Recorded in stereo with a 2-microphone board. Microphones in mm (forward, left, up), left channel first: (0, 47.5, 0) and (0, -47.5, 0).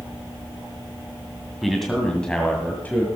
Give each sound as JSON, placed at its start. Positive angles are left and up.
{"t": 1.6, "sound": "a man speaking", "side_deg": 0, "distance_m": 2.0}